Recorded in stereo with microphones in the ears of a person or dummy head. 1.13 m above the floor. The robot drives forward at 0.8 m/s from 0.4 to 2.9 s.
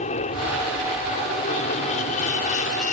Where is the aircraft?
40° left (ahead or behind).